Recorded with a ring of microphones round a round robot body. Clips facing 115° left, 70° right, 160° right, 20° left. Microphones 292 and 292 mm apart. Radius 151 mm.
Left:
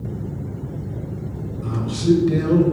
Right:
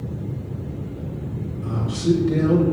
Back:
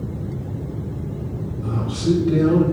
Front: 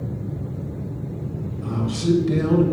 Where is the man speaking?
45° left, 2 m.